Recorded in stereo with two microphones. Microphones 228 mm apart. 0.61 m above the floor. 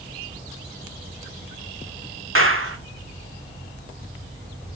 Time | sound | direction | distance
2.4 | a clap | 65° right (ahead or behind) | 2 m